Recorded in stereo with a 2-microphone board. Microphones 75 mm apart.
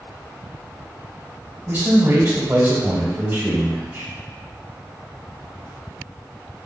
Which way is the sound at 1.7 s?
35° right (ahead or behind).